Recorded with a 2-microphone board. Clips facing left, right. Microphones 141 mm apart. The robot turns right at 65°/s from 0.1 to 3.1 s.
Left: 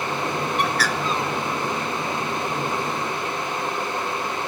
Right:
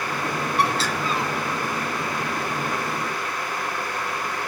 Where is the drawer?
I don't hear a drawer.